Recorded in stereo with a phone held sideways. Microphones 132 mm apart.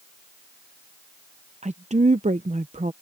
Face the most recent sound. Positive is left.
turn(degrees=-60)  # may be behind; listen again after turning